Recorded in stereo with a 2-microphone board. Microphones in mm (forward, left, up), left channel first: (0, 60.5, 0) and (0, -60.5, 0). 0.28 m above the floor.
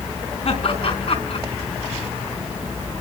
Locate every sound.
0.5 s laughter: 55° left (ahead or behind), 3.5 m